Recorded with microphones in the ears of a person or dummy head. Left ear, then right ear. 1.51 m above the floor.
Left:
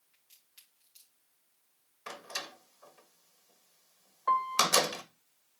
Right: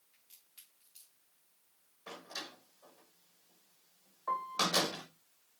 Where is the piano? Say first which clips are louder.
Left 6 dB; 75° left (ahead or behind), 1.2 m.